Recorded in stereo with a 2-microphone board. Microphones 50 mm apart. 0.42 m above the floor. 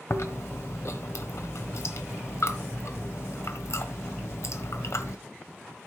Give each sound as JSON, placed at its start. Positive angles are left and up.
{"t": 0.1, "sound": "chewing", "side_deg": 65, "distance_m": 1.3}